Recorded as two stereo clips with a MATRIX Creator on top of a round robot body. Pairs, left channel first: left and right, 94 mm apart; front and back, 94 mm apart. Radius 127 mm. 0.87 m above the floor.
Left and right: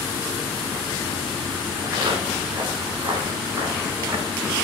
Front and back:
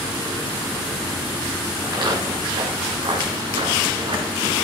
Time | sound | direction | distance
1.8 | footsteps | 135° right | 6.5 m